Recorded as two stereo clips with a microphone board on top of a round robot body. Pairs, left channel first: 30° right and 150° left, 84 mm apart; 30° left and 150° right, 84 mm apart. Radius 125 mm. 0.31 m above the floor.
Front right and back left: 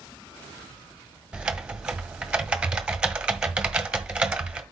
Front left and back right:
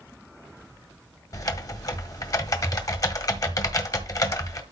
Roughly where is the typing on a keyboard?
Left.